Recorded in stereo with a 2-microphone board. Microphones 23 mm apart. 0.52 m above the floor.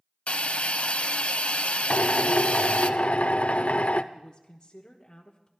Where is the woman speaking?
35° left (ahead or behind), 1.2 m.